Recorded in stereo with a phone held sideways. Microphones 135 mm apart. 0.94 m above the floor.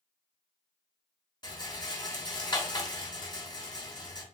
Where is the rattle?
30° left (ahead or behind), 0.7 m.